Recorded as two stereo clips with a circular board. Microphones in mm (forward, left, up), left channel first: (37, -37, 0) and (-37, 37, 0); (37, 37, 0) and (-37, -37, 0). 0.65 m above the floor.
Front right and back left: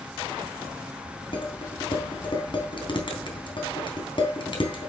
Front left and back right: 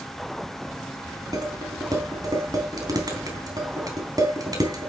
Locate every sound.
1.3 s dishes clattering: 80° right, 3.5 m